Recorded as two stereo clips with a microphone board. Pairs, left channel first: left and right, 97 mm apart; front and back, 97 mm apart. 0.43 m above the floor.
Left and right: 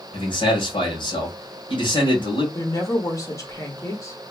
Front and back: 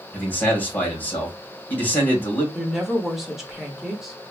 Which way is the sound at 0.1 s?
70° left.